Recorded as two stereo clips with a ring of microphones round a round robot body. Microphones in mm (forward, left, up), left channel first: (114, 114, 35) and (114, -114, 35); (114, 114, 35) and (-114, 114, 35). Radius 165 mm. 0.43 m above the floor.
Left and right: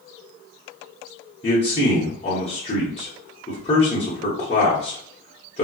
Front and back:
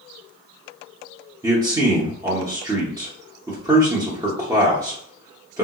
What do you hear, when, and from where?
1.4 s a man speaking: 120° left, 0.9 m